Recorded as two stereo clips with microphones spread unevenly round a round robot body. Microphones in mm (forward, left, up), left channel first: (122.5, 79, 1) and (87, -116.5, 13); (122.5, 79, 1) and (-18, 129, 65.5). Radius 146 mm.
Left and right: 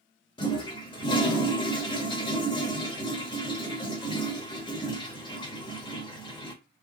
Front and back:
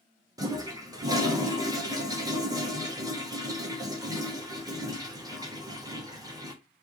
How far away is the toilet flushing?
About 1.2 m.